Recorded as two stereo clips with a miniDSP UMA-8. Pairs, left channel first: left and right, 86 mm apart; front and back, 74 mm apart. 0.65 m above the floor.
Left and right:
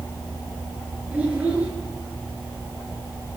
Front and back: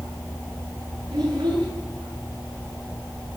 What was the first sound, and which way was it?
A child speaking, 165° right.